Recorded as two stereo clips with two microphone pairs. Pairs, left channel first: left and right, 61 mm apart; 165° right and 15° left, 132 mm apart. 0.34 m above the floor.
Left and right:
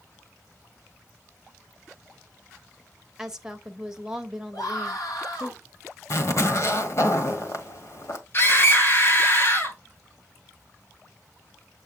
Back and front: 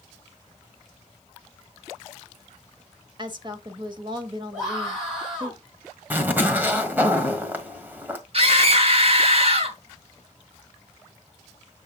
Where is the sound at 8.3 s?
45° left, 2.5 m.